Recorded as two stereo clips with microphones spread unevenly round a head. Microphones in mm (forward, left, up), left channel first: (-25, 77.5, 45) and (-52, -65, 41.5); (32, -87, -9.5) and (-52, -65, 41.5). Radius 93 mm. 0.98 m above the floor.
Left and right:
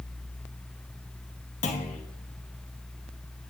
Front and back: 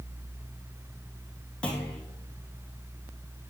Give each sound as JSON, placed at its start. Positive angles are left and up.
{"t": 1.6, "sound": "a clunk", "azimuth_deg": 50, "distance_m": 1.7}